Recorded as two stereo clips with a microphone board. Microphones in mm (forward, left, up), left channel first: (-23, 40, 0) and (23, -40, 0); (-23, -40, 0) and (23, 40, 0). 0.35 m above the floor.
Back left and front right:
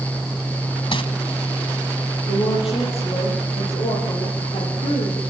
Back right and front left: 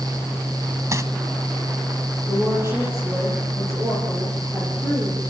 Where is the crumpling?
115° left, 1.6 m.